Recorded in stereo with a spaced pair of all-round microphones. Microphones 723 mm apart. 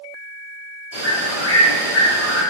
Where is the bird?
15° left (ahead or behind), 1.8 m.